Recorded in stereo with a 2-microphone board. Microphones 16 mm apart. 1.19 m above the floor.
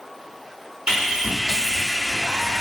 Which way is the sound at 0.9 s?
70° right (ahead or behind).